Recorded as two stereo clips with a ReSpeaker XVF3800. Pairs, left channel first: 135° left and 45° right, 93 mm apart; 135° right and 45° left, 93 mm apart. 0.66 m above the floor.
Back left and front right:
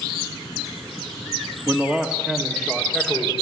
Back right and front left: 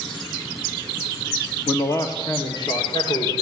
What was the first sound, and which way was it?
A man speaking, 95° right.